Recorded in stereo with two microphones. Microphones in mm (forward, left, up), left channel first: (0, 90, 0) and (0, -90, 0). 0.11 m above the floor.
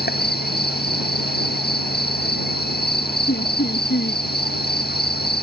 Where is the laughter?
65° left (ahead or behind).